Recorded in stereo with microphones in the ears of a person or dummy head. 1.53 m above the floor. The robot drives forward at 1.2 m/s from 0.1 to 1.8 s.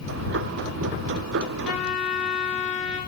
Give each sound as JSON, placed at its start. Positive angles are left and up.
{"t": 1.6, "sound": "a trumpet", "side_deg": 5, "distance_m": 2.0}